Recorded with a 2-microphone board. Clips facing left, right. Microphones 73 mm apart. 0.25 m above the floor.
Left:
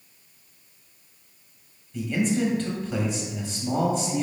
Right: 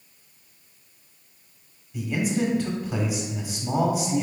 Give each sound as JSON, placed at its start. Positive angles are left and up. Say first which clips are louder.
{"t": 1.9, "sound": "a man speaking", "louder": "left 1 dB", "side_deg": -10, "distance_m": 1.0}